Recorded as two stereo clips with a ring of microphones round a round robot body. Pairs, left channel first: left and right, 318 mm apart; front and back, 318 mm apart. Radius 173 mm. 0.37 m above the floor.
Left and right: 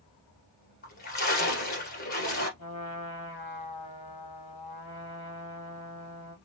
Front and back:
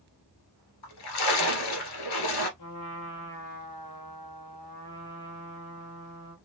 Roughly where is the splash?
Ahead.